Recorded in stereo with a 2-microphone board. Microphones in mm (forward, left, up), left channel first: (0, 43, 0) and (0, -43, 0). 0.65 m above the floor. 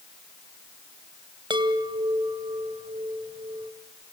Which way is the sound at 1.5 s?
70° right (ahead or behind).